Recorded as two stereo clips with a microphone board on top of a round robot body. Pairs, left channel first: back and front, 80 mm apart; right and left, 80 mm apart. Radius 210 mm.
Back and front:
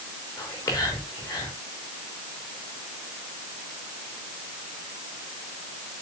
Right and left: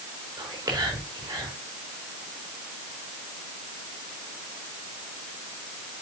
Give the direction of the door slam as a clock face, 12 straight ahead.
I don't hear a door slam.